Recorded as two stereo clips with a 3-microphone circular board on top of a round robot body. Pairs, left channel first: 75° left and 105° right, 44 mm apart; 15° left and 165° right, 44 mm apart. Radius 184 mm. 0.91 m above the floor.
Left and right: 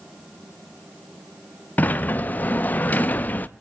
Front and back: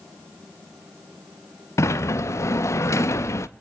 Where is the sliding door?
20° left, 0.6 m.